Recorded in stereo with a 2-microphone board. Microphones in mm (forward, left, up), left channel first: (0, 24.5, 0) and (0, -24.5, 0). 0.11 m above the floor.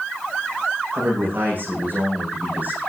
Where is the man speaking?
45° right (ahead or behind), 8.5 m; by 2.8 s 35° right (ahead or behind), 8 m.